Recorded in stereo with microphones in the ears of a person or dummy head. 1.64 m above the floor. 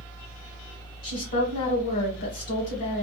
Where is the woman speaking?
40° left (ahead or behind), 1.5 m.